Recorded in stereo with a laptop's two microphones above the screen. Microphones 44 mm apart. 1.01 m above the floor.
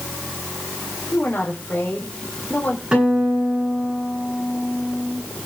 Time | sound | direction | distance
1.1 | a woman speaking | 40° left (ahead or behind) | 4 m
2.9 | a guitar | 20° right (ahead or behind) | 9.5 m